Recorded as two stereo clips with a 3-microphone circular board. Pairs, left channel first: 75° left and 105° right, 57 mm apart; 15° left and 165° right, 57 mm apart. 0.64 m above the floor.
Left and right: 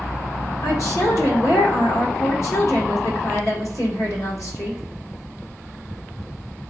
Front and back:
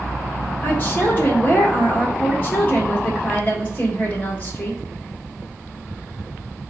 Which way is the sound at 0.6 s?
75° left.